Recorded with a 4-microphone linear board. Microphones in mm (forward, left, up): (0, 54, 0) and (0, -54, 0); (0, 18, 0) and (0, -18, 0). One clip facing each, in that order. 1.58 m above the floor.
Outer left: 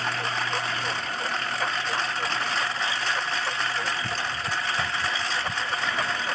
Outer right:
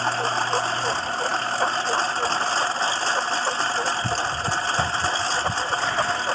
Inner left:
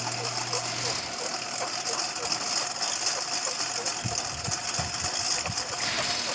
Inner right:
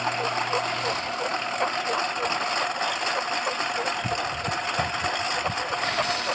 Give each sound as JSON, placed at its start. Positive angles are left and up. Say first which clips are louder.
{"t": 0.0, "sound": "a lawn mower", "louder": "outer right 5 dB, inner right 7 dB", "side_deg": -30}